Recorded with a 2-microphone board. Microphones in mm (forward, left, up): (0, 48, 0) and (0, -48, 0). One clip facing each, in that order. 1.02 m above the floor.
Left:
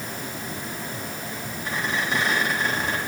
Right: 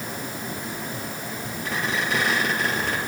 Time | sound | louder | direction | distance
1.6 | a squeak | even | 70° right (ahead or behind) | 3.5 m